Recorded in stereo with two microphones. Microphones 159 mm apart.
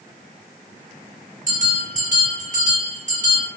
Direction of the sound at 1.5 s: 55° right (ahead or behind).